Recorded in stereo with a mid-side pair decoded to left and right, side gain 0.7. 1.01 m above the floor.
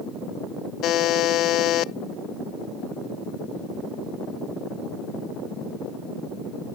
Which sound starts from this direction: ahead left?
A buzzer, at 0.8 s.